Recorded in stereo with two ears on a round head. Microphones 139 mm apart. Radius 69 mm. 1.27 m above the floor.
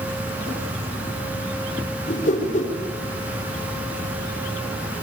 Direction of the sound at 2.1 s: 50° left (ahead or behind).